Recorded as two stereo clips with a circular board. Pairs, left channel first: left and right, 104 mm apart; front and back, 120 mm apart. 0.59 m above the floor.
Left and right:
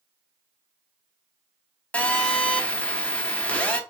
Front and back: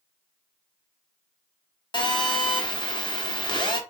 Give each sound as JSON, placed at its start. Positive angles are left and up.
{"t": 1.9, "sound": "a phone buzzing", "azimuth_deg": 20, "distance_m": 0.8}